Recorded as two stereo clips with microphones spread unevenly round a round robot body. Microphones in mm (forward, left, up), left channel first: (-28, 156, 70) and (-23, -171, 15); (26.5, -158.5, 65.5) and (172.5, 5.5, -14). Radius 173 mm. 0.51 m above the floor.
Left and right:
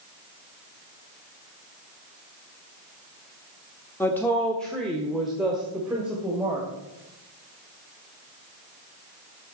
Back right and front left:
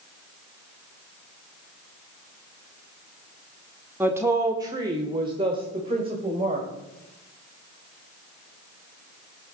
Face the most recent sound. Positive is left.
turn(degrees=-5)